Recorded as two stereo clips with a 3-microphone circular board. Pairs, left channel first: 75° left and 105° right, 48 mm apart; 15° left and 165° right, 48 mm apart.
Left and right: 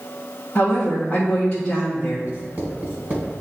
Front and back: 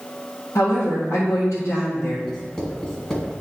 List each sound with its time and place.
0.6 s a woman speaking: 5° left, 1.8 m
2.3 s writing: 60° right, 2 m